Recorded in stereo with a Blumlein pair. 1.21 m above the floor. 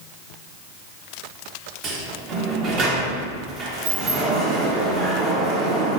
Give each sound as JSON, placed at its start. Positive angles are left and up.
{"t": 1.8, "sound": "a sliding door", "azimuth_deg": -30, "distance_m": 0.7}